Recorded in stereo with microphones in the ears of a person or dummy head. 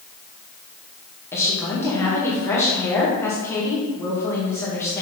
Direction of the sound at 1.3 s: 15° left (ahead or behind).